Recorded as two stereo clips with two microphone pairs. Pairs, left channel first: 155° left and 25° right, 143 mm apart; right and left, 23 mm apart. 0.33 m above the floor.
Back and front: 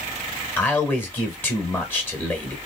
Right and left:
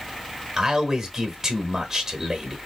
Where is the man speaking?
100° left, 1.0 m.